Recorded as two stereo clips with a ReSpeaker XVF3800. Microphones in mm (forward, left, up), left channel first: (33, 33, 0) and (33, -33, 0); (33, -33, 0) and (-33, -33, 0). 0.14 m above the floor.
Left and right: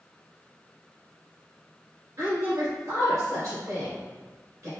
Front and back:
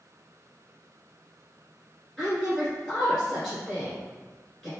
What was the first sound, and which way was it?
A woman speaking, 80° right.